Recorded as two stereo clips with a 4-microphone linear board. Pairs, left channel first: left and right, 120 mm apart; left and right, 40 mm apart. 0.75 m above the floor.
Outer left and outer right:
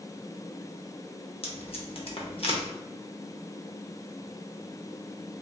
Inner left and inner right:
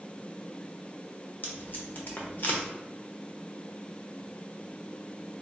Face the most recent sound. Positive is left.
turn(degrees=50)  # may be behind; listen again after turning